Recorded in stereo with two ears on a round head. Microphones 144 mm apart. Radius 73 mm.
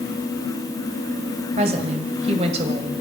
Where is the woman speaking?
40° right (ahead or behind), 2 m.